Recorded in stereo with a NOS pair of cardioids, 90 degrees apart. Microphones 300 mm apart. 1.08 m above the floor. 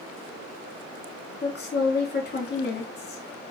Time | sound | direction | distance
1.4 | a woman speaking | 35° left | 1.6 m